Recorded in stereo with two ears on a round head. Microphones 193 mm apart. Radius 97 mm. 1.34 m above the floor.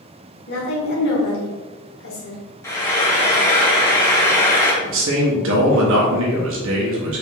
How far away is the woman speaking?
About 1.5 m.